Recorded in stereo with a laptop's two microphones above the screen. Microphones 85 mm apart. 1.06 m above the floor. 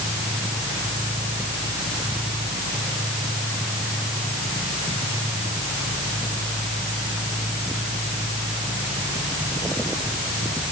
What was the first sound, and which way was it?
Only background noise.